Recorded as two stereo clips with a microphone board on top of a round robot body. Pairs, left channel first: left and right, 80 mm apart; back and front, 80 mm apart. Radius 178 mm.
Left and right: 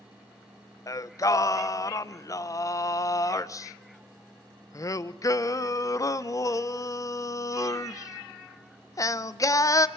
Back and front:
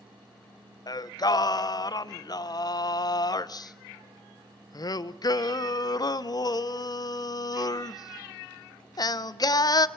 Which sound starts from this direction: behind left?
Singing, at 0.9 s.